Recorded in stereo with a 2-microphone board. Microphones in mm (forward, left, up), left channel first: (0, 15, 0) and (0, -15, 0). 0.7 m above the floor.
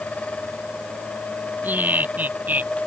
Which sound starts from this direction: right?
Laughter, at 1.6 s.